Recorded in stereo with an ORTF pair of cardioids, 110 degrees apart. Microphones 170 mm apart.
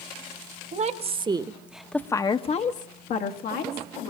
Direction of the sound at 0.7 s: 45° right.